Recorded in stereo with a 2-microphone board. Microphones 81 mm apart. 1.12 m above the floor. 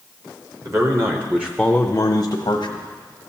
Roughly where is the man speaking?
Right.